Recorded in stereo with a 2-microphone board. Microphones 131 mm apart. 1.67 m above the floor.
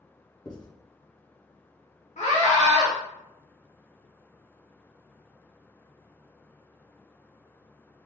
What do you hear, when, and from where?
0.5 s writing: 35° left (ahead or behind), 1.0 m
2.2 s a scream: 65° left (ahead or behind), 1.6 m